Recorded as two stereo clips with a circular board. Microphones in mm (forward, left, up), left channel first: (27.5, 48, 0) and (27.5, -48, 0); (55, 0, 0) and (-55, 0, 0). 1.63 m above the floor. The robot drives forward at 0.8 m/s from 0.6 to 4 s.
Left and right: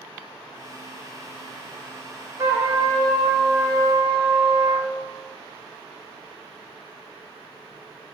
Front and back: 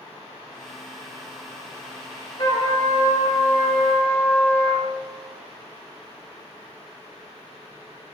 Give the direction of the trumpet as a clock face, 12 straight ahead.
1 o'clock.